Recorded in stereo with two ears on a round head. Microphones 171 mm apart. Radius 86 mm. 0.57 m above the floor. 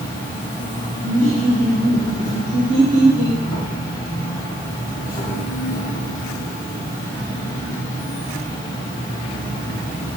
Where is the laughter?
70° right (ahead or behind), 1.7 m.